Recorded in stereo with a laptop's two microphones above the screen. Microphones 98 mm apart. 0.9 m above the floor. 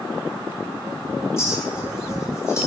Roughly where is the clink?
Left.